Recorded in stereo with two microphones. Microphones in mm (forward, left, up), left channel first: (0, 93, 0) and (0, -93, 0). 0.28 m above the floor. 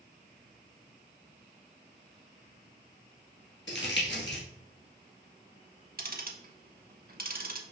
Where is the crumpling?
75° left (ahead or behind), 1.5 m.